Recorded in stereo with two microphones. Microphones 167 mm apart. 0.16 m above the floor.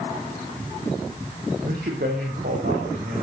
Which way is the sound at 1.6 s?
80° right.